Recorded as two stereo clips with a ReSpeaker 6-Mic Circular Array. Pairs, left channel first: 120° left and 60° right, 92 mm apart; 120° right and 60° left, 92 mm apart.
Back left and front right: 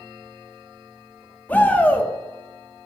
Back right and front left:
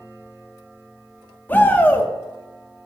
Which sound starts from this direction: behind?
A shout, at 1.5 s.